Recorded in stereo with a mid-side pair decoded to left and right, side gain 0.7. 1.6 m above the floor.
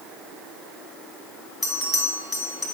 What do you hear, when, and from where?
1.6 s a bell: 20° left, 1.9 m